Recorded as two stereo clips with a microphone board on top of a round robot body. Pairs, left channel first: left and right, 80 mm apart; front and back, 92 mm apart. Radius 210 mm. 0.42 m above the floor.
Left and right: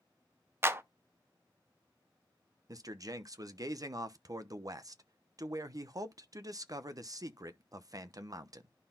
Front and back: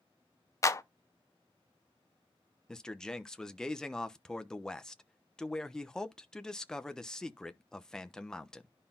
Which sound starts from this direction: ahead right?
A clap, at 0.6 s.